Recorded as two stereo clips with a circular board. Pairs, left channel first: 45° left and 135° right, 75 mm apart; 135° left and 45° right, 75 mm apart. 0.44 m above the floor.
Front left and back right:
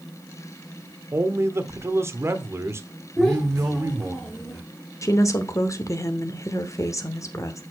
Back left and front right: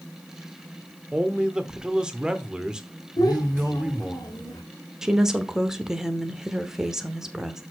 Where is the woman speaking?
35° left, 1.0 m.